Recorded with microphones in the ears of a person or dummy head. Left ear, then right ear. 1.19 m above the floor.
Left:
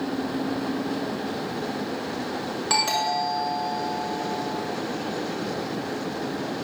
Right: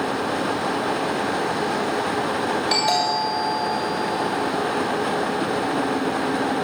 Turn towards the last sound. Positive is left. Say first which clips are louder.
# right 1 dB
turn(degrees=65)  # may be behind; listen again after turning